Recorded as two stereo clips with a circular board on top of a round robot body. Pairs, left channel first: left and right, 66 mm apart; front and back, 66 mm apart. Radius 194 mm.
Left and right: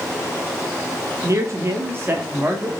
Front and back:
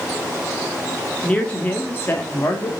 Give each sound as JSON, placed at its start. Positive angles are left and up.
{"t": 1.2, "sound": "a man speaking", "azimuth_deg": -70, "distance_m": 1.5}